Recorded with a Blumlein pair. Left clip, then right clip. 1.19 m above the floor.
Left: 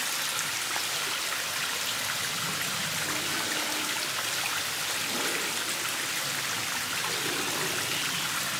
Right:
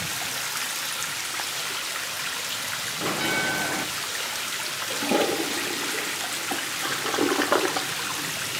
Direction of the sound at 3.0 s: 50° right.